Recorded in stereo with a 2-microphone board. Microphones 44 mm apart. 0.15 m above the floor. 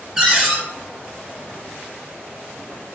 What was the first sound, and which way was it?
A cupboard door, 10° right (ahead or behind).